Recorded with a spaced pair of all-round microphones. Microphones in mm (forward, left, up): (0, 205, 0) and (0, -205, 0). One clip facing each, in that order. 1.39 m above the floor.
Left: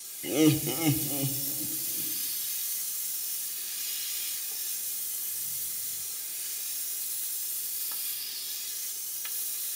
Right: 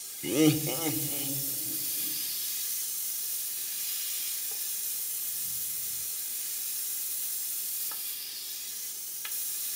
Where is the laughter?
20° right (ahead or behind), 0.5 m; by 2.1 s 80° left, 1.8 m.